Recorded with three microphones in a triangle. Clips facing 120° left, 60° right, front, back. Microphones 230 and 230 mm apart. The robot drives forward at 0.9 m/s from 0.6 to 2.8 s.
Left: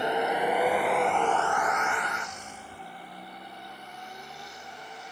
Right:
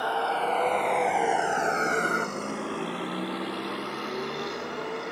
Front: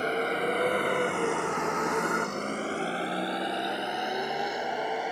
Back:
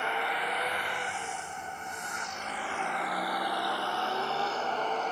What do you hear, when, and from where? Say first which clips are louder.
0.0 s a vehicle: left 2 dB, front 7 dB; 50° left; by 5.1 s 80° right